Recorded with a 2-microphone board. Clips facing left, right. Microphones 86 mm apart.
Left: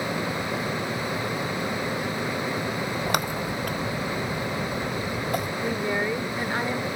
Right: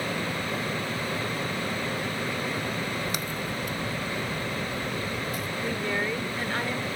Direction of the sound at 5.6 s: 20° left (ahead or behind).